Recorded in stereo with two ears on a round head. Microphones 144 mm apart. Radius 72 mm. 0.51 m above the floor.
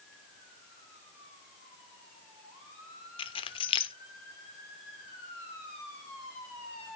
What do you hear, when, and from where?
3.2 s keys jangling: 35° left (ahead or behind), 0.6 m